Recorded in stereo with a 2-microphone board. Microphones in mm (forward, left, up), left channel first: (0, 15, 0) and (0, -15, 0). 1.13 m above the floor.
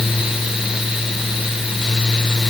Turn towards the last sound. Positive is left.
No sound to turn to.